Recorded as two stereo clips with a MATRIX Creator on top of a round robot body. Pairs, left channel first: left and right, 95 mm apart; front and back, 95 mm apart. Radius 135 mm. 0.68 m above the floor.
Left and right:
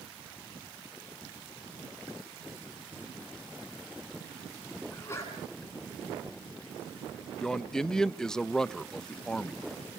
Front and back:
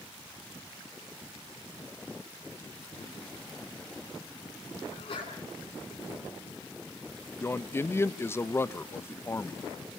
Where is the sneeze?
30° left, 8.5 m.